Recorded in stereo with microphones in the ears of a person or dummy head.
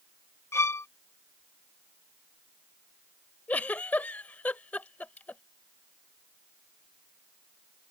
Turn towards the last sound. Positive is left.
turn(degrees=10)  # may be behind; listen again after turning